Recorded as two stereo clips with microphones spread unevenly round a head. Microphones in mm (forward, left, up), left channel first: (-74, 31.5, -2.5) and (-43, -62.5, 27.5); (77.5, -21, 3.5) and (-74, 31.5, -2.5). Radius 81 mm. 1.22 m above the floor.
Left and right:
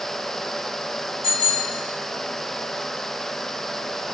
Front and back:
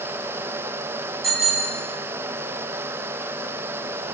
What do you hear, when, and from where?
1.2 s a bicycle bell: 70° left, 5 m